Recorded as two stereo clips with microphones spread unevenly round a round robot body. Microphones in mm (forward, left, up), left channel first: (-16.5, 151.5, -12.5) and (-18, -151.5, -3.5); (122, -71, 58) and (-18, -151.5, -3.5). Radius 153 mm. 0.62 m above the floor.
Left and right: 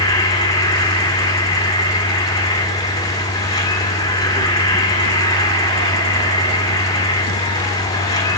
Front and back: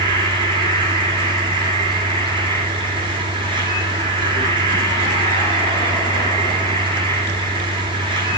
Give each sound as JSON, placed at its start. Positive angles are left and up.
{"t": 0.0, "sound": "an insect", "azimuth_deg": 165, "distance_m": 2.0}